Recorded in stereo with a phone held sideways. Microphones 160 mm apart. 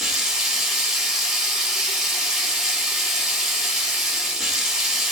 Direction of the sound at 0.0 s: Centre (ahead or behind).